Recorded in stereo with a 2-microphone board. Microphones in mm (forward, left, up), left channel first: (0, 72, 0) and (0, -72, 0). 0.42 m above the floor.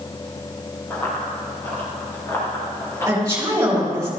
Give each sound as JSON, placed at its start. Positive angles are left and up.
{"t": 0.9, "sound": "running footsteps", "side_deg": 15, "distance_m": 3.5}
{"t": 3.1, "sound": "a woman speaking", "side_deg": -20, "distance_m": 3.5}